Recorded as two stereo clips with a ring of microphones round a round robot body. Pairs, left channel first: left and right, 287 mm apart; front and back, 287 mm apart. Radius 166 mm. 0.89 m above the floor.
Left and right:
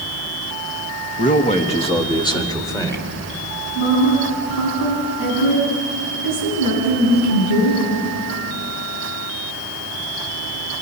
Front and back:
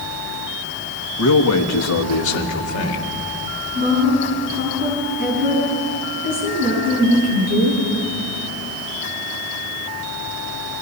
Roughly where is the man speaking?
Ahead left.